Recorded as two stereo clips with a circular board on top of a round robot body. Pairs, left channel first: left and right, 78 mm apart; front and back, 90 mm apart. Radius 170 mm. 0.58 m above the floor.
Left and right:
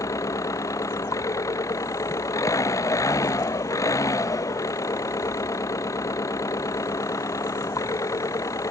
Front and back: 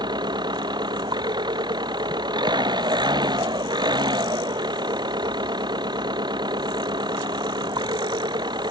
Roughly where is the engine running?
Behind left.